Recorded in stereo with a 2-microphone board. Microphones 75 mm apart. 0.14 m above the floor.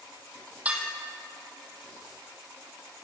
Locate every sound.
0.7 s dishes clattering: 20° right (ahead or behind), 3.5 m